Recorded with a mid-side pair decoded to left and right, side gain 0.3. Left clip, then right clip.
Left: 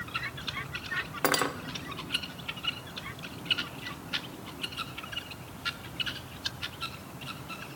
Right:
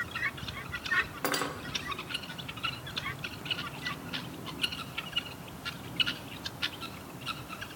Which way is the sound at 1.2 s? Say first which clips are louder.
Left 4 dB; 60° left.